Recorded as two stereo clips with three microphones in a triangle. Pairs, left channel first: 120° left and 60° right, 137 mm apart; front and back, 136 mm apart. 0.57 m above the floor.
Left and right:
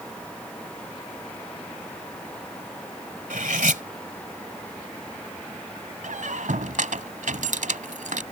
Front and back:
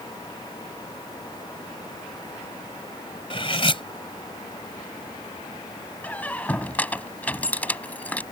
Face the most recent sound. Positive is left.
turn(degrees=-80)